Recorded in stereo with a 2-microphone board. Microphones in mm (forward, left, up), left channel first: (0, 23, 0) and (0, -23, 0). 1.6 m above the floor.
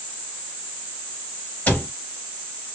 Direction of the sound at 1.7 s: 40° left (ahead or behind).